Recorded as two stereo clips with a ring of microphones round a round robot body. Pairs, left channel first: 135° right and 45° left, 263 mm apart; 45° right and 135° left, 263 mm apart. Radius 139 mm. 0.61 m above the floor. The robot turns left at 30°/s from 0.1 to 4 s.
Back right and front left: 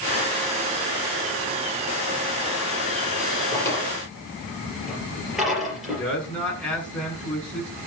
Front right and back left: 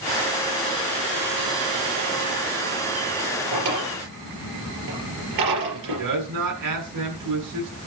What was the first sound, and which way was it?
A drawer, 150° left.